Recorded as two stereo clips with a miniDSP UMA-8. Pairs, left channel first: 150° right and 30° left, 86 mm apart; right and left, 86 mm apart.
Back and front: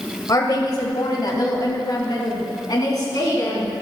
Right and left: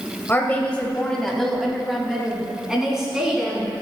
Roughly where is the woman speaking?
Behind right.